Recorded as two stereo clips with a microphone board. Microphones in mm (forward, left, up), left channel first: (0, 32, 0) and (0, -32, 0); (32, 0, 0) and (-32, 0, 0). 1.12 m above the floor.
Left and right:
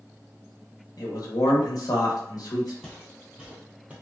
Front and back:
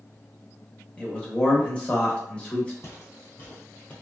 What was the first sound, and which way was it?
A man speaking, 75° left.